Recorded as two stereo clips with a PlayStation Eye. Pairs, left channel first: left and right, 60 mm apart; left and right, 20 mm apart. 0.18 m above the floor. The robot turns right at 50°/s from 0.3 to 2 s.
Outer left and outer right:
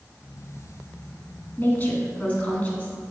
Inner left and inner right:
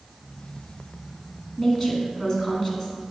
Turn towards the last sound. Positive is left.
turn(degrees=25)  # may be behind; listen again after turning